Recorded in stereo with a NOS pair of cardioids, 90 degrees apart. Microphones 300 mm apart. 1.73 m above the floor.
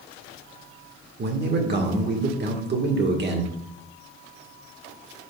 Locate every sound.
1.2 s a man speaking: 40° right, 1.8 m